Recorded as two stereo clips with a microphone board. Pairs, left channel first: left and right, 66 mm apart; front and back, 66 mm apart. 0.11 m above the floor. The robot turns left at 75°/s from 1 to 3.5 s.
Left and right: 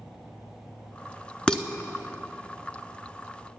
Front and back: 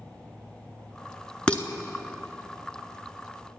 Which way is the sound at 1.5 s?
40° left.